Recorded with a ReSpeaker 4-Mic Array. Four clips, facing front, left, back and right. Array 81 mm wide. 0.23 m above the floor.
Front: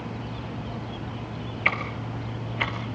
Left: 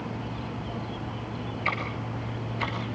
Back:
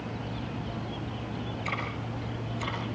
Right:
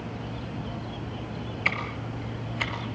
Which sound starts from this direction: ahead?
Ticking, at 1.6 s.